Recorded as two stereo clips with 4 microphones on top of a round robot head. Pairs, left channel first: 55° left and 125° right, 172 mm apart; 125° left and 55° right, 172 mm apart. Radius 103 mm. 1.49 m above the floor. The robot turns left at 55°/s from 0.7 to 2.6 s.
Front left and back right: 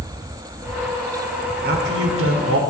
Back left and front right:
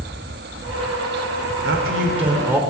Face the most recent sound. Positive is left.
turn(degrees=-135)